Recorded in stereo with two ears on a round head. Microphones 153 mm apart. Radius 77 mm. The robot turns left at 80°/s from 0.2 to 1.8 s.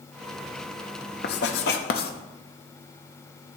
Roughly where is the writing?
Left.